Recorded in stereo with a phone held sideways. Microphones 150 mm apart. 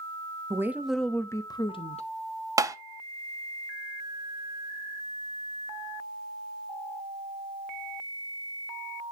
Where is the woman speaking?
20° right (ahead or behind), 0.7 m; by 2.1 s 45° left (ahead or behind), 0.8 m.